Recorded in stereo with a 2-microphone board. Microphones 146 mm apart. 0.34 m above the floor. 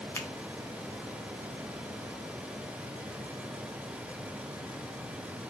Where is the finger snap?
20° left (ahead or behind), 0.8 m.